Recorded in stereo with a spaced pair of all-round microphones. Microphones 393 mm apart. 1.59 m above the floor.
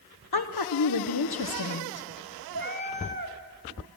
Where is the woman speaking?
70° left (ahead or behind), 1.0 m.